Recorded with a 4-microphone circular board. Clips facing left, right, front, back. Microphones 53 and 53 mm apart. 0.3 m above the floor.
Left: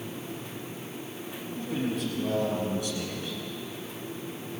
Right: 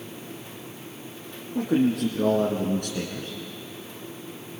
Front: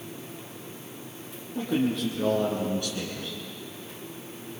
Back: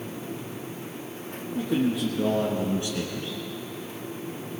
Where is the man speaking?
90° right, 4 m; by 3.4 s 130° right, 2.5 m.